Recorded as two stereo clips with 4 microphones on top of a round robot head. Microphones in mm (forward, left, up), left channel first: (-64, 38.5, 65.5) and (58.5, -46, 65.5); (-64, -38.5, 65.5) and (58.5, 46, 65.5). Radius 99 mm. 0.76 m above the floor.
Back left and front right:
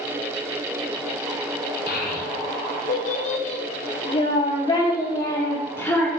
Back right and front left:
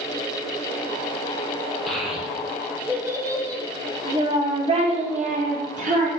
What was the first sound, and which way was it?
A child speaking, 125° left.